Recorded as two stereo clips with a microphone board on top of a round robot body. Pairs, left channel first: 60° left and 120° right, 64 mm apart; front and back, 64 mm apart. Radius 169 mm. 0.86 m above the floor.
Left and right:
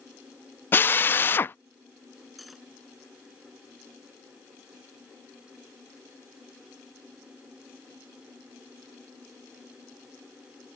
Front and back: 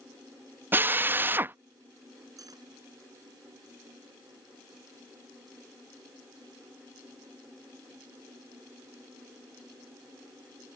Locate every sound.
0.7 s a drill: 120° left
2.4 s cutlery clinking: 150° left